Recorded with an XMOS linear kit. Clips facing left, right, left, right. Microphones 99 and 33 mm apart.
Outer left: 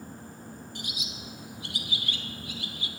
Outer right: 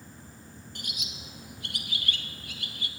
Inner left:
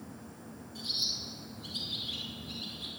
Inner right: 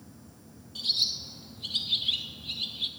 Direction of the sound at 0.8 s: 60° right (ahead or behind).